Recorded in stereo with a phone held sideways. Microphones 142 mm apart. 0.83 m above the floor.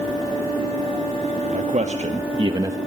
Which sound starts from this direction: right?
A man speaking, at 1.5 s.